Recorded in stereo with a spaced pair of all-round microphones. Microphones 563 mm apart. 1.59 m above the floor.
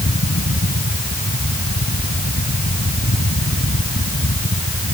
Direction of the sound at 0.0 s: 25° left (ahead or behind).